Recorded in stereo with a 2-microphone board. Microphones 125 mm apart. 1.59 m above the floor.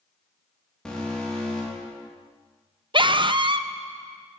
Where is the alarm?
5° left (ahead or behind), 3 m.